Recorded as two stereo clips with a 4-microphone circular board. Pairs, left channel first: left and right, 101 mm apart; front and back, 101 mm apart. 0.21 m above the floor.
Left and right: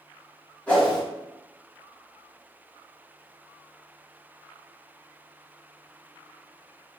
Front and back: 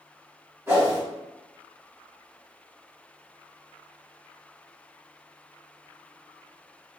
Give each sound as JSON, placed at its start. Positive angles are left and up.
{"t": 0.7, "sound": "a whoosh", "azimuth_deg": 150, "distance_m": 1.4}